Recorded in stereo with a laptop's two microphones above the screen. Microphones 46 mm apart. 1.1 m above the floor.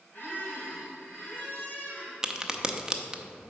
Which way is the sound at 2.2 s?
15° right (ahead or behind).